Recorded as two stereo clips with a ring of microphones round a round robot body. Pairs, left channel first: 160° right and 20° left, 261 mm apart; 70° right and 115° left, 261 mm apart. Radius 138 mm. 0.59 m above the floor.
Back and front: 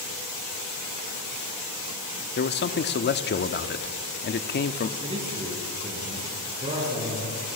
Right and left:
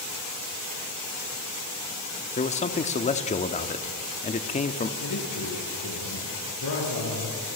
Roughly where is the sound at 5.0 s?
Ahead right.